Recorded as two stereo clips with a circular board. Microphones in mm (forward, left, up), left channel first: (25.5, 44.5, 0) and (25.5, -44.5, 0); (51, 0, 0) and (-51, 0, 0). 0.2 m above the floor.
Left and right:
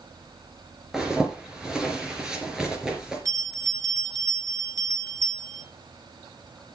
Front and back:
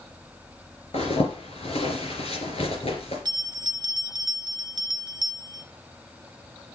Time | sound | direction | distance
0.9 | a zipper | 5° right | 3 m
3.2 | a bell | 135° right | 1.2 m